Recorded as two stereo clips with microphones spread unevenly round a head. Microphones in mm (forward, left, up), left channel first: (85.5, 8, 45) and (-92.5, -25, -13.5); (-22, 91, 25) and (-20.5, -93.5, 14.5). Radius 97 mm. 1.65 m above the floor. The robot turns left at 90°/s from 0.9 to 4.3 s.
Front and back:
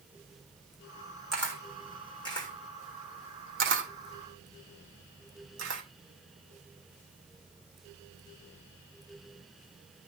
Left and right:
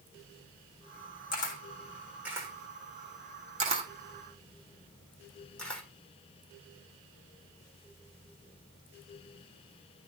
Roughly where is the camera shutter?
Left.